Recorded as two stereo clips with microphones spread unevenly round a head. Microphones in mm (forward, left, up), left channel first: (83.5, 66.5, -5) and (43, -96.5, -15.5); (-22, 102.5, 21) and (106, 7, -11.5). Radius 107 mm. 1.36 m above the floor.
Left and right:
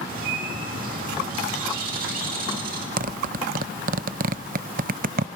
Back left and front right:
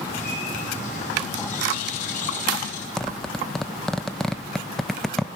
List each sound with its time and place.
0.1 s a bird: 160° right, 2.5 m
3.0 s a zipper: 140° right, 0.6 m